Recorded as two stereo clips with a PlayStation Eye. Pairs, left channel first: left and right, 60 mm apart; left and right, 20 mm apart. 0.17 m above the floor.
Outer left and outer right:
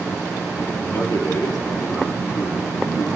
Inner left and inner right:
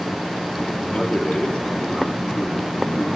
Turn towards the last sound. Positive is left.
turn(degrees=65)  # may be behind; listen again after turning